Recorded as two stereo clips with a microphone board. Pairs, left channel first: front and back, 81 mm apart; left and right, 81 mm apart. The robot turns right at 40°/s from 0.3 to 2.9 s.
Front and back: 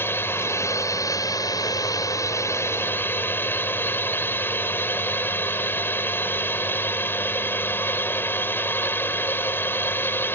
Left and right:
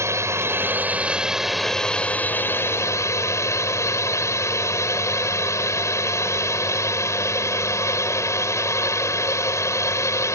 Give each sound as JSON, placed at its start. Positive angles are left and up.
{"t": 0.0, "sound": "a drone", "azimuth_deg": -50}